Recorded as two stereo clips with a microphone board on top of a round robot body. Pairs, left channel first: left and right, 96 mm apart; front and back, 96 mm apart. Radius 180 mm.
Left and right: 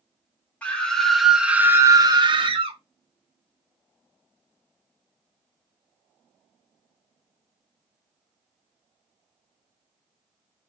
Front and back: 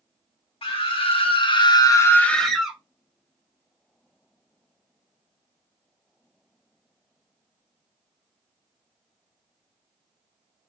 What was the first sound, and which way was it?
A scream, 15° left.